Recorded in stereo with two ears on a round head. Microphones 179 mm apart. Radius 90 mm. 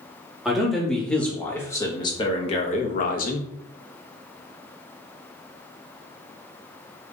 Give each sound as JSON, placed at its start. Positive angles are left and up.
{"t": 0.5, "sound": "a man speaking", "side_deg": 0, "distance_m": 1.6}